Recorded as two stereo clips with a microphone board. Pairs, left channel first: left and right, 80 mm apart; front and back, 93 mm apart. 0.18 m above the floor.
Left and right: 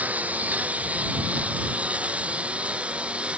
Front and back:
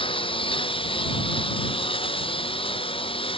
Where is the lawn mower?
20° right; by 3.4 s 15° right.